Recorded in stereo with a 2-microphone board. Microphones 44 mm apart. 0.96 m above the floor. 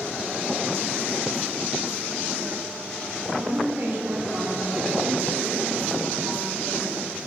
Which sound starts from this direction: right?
A woman speaking, at 3.3 s.